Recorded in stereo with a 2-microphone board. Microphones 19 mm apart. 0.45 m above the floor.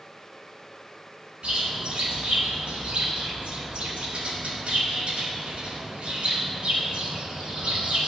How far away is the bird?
About 1.9 m.